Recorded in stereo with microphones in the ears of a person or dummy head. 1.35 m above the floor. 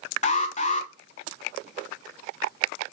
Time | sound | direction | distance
0.2 | an alarm | 40° left (ahead or behind) | 1.0 m